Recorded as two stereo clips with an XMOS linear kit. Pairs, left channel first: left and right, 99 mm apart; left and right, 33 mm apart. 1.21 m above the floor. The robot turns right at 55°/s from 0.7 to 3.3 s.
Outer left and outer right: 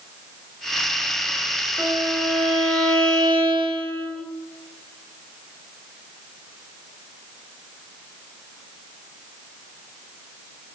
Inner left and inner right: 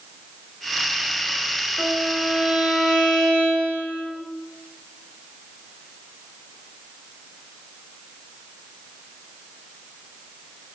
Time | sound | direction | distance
1.8 | a violin | 165° right | 2 m